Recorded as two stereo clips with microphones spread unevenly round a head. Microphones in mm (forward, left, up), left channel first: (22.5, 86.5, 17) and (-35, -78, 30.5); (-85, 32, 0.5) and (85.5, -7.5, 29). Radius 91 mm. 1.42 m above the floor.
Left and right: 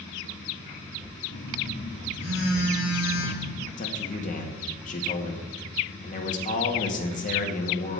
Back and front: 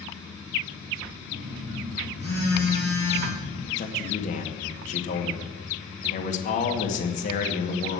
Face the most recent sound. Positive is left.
turn(degrees=120)